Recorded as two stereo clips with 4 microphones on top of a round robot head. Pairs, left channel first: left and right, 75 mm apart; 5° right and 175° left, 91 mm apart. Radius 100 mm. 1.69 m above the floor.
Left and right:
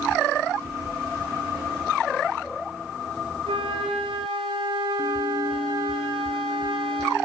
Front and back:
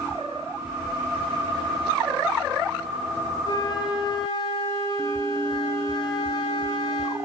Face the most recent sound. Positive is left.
turn(degrees=-60)